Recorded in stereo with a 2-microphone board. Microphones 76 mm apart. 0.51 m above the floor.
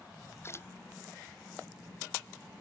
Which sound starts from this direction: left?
A splash, at 0.4 s.